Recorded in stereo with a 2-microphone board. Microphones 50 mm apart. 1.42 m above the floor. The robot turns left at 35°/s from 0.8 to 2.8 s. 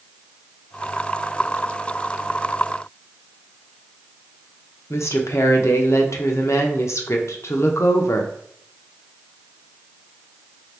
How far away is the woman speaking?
About 0.6 m.